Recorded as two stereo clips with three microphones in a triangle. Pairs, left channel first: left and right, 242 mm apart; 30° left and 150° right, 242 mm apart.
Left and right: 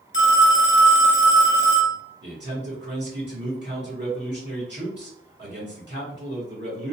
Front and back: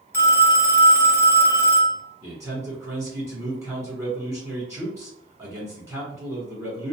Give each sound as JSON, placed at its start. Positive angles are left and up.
{"t": 0.1, "sound": "a phone ringing", "azimuth_deg": 105, "distance_m": 0.9}
{"t": 2.2, "sound": "a man speaking", "azimuth_deg": -75, "distance_m": 2.0}